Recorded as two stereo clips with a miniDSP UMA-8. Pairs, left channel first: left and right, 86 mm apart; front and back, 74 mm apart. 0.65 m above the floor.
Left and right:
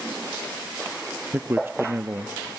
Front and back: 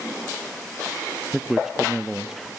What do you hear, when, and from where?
1.3 s a man speaking: 105° right, 0.5 m